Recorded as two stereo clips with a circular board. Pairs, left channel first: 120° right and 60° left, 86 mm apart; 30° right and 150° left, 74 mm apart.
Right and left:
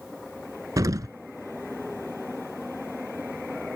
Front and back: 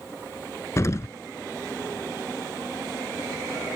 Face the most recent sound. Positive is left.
turn(degrees=15)